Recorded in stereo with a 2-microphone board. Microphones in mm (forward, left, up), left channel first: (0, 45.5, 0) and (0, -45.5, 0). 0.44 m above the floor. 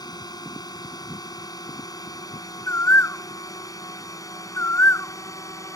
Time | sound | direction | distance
0.0 | a drone | 45° left (ahead or behind) | ?
2.7 | a bird | 30° left (ahead or behind) | ?